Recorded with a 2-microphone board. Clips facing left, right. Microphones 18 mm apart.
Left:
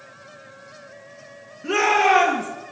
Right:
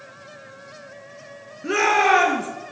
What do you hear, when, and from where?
1.6 s a shout: 10° right (ahead or behind), 4.5 m